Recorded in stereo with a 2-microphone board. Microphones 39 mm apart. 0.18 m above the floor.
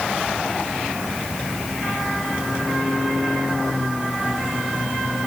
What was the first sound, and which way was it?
Only background noise.